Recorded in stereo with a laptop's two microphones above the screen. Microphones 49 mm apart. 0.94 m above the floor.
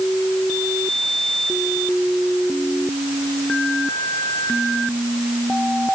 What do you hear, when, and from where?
Only background noise.